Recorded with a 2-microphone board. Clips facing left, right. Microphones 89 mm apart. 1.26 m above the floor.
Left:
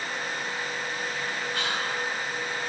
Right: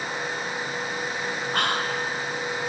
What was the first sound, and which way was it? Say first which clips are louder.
Whispering: right 6 dB; 55° right (ahead or behind).